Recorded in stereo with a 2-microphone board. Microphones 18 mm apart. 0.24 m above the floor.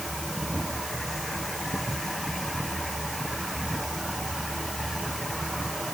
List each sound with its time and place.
Only background noise.